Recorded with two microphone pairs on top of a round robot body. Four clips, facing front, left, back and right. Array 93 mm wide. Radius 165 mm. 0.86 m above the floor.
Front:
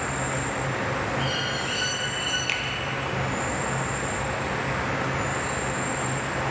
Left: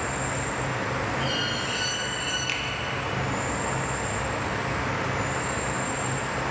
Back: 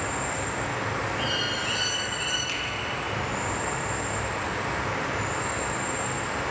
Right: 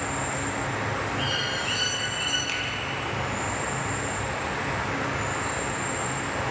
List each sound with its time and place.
0.0 s an insect: 20° left, 1.0 m
1.2 s a bird: 105° right, 1.4 m
2.5 s a finger snap: 20° left, 0.6 m